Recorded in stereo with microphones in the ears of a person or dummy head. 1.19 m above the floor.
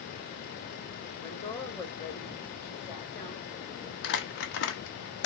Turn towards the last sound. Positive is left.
turn(degrees=60)  # may be behind; listen again after turning